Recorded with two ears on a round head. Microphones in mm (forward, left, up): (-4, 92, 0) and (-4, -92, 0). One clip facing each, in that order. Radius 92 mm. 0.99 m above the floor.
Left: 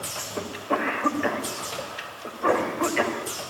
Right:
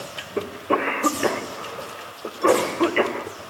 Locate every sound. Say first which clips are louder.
0.4 s a cough: right 4 dB; 45° right (ahead or behind), 4 m